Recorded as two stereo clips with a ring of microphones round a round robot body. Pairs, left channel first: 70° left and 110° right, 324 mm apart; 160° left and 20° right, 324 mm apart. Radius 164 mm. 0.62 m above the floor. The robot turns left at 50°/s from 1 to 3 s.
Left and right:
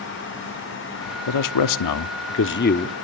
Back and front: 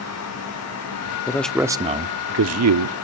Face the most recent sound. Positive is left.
turn(degrees=-5)